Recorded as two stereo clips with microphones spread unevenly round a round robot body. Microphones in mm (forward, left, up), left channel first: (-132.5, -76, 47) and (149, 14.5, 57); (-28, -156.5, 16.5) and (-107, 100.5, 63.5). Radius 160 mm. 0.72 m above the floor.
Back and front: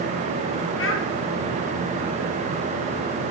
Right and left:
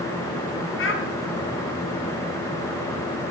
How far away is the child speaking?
About 3.5 m.